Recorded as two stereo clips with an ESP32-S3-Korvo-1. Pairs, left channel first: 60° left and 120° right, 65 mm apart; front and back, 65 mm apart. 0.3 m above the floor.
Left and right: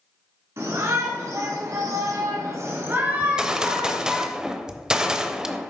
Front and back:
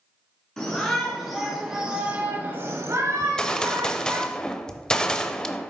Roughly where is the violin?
I don't hear a violin.